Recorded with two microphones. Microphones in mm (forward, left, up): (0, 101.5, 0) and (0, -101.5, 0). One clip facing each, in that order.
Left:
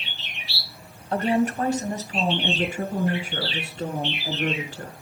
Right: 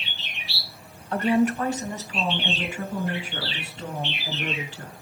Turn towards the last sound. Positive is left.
turn(degrees=50)  # may be behind; listen again after turning